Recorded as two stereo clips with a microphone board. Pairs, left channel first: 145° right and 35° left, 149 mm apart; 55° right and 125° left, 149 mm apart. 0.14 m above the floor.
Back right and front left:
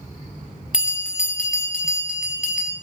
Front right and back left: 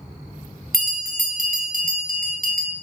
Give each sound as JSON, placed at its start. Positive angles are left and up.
{"t": 0.7, "sound": "a bell", "azimuth_deg": 120, "distance_m": 1.1}